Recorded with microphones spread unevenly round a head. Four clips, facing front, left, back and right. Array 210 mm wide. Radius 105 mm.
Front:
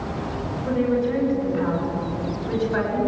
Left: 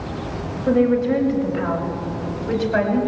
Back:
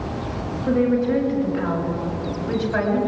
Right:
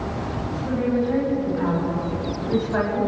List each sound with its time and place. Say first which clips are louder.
0.7 s a woman speaking: left 6 dB, back 3 dB; 90° left, 6.5 m; by 3.0 s 100° left, 8.5 m